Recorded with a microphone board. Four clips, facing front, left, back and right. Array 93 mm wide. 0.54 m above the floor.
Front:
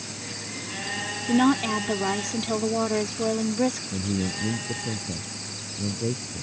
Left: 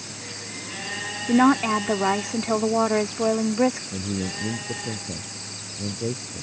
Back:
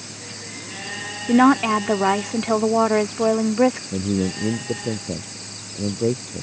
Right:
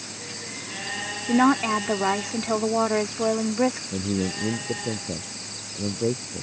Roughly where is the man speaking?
Behind.